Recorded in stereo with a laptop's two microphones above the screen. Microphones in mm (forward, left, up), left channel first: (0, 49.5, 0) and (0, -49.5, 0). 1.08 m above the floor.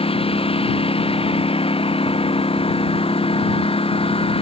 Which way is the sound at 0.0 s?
80° left.